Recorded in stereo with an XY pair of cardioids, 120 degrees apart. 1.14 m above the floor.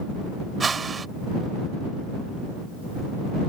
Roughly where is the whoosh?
Ahead right.